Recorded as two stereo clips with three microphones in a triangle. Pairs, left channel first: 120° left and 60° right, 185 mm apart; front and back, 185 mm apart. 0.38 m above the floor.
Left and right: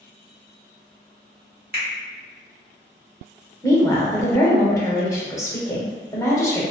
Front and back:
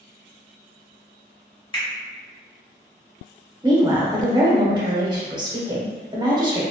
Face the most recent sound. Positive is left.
turn(degrees=165)